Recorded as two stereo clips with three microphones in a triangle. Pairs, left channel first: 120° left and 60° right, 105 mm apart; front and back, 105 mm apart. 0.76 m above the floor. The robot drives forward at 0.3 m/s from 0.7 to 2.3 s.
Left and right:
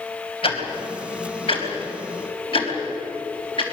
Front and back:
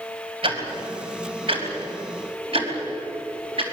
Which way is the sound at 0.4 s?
150° left.